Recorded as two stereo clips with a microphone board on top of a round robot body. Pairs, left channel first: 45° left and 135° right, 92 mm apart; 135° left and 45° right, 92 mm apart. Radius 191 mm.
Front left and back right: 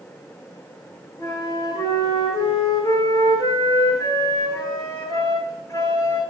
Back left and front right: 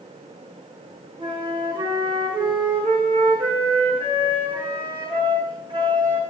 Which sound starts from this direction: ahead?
A flute, at 1.2 s.